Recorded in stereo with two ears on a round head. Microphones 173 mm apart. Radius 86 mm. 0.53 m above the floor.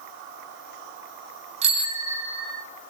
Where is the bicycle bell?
35° right (ahead or behind), 2.5 m; by 2.6 s 5° left (ahead or behind), 2 m.